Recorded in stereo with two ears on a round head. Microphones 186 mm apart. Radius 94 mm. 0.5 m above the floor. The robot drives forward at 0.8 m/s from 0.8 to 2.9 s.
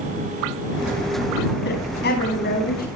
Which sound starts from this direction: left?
A woman speaking, at 1.6 s.